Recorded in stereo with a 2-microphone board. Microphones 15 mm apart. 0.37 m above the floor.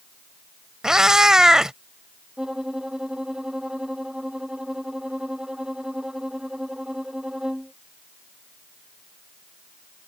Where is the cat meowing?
45° right (ahead or behind).